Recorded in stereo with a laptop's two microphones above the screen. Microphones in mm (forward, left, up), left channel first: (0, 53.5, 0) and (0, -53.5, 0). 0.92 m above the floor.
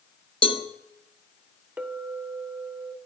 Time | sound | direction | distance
0.4 | a cowbell | 60° left (ahead or behind) | 1.0 m
1.8 | a clink | 20° right (ahead or behind) | 2 m